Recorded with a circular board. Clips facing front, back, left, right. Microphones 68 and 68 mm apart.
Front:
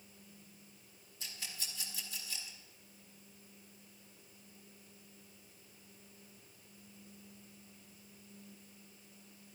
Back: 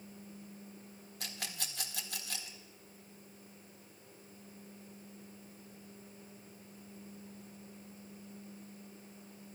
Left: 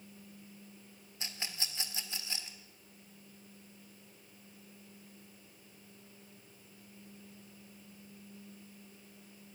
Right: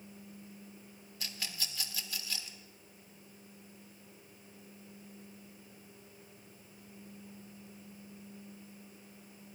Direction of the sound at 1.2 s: 155° left.